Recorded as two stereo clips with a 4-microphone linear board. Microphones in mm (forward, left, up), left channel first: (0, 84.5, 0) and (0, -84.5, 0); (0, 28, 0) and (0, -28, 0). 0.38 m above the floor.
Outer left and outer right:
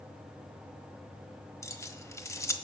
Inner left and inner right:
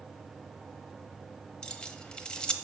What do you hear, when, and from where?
1.6 s keys jangling: 15° left (ahead or behind), 1.1 m